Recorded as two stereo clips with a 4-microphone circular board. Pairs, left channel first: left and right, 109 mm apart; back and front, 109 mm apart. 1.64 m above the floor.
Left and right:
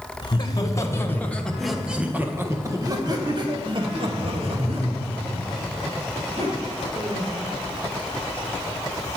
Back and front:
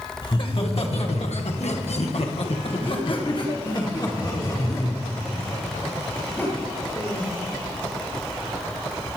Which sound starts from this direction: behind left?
Laughter, at 0.2 s.